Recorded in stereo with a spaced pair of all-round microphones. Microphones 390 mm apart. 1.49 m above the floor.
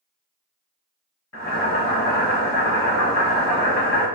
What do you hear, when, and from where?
1.3 s boiling: 40° left (ahead or behind), 1.3 m